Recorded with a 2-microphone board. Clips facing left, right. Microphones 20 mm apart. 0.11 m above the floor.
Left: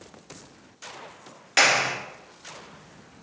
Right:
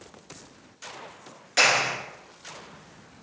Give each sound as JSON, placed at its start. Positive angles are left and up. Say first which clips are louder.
{"t": 1.6, "sound": "a clap", "louder": "left 1 dB", "side_deg": 25, "distance_m": 1.5}